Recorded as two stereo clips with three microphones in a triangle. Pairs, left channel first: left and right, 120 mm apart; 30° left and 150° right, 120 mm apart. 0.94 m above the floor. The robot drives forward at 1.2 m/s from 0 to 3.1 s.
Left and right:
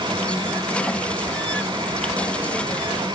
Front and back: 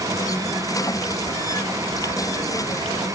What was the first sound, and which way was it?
Only background noise.